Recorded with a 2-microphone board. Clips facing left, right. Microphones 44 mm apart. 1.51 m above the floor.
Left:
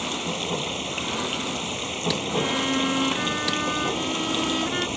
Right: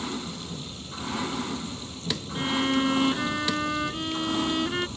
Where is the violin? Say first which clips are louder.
Right 1 dB; centre (ahead or behind).